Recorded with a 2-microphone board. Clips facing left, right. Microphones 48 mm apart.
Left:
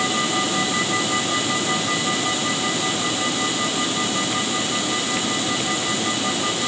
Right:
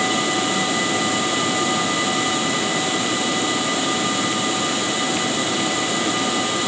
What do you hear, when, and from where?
Only background noise.